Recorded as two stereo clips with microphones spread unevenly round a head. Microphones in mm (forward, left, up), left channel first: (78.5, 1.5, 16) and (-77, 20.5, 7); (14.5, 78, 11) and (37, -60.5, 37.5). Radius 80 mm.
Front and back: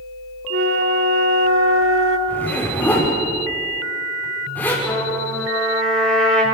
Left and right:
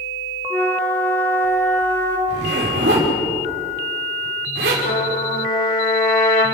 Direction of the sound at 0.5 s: Straight behind.